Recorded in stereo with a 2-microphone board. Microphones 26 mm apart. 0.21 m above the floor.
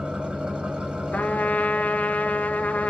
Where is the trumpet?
80° left, 0.5 m.